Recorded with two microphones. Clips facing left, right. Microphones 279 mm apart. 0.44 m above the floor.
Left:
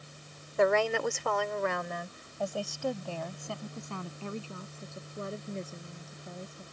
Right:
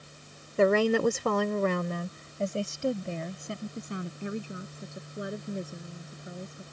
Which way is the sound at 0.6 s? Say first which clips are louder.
Right 4 dB; 35° right (ahead or behind).